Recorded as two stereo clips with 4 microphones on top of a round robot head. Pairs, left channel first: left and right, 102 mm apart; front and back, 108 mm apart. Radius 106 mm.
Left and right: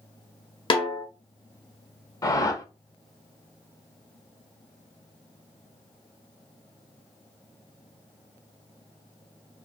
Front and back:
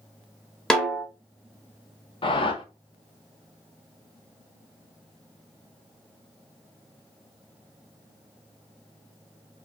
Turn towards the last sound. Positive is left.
turn(degrees=35)